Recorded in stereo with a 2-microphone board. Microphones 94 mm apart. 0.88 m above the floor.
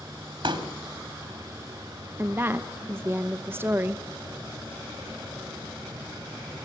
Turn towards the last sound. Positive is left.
turn(degrees=-25)  # may be behind; listen again after turning